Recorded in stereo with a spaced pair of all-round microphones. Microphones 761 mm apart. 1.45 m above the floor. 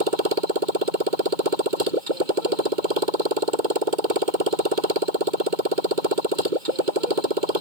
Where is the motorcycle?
80° right.